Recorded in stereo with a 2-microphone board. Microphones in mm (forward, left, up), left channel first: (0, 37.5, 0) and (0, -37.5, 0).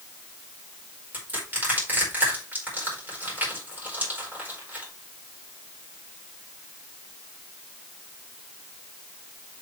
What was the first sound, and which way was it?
Crushing, 25° right (ahead or behind).